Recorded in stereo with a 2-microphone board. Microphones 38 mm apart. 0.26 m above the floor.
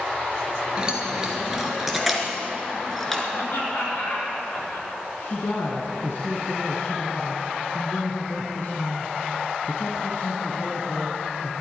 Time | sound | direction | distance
0.8 | keys jangling | 20° right (ahead or behind) | 2.5 m
3.3 | laughter | 70° left (ahead or behind) | 4.5 m
5.2 | a woman speaking | 65° left (ahead or behind) | 2 m